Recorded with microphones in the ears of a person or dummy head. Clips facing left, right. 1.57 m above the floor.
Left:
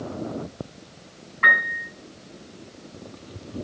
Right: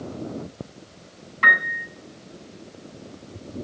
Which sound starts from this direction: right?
A piano, at 1.4 s.